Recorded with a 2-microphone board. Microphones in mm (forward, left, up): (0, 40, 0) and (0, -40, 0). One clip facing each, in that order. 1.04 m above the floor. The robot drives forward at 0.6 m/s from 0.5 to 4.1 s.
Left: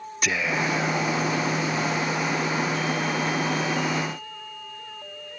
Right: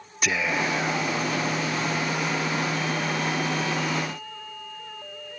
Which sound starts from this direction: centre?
Whispering, at 0.2 s.